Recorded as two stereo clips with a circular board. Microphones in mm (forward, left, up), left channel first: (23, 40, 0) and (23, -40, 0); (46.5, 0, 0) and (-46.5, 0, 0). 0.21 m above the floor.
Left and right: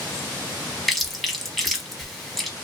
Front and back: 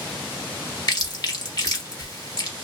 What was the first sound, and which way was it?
Chewing, straight ahead.